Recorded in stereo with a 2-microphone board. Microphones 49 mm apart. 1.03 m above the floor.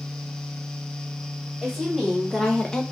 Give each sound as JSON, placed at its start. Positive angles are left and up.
{"t": 1.6, "sound": "a woman speaking", "side_deg": 0, "distance_m": 1.6}